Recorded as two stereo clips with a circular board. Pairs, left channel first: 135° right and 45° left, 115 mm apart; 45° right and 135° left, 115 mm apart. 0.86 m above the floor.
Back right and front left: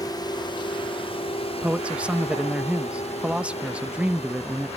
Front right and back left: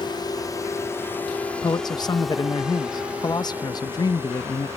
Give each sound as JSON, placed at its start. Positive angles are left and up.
{"t": 0.0, "sound": "a drone", "azimuth_deg": -85}
{"t": 1.6, "sound": "a man speaking", "azimuth_deg": -25}